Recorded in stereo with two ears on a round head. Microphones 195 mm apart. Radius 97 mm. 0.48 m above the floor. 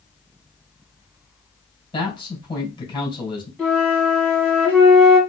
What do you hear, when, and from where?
1.9 s a man speaking: 25° left (ahead or behind), 3.5 m
3.6 s a flute: 5° left (ahead or behind), 2.5 m